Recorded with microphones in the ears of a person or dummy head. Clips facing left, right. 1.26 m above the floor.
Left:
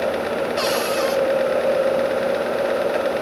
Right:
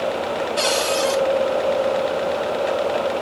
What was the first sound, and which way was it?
A cupboard door, 15° right (ahead or behind).